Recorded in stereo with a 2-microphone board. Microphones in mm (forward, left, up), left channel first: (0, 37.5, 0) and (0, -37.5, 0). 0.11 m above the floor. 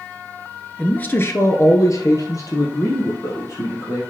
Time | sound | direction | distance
0.8 | a man speaking | 15° left (ahead or behind) | 1.2 m